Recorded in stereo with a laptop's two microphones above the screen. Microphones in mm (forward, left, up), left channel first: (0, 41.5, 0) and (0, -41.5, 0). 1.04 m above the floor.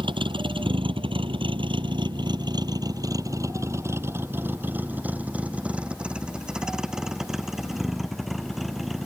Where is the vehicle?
75° right (ahead or behind); by 9.1 s centre (ahead or behind).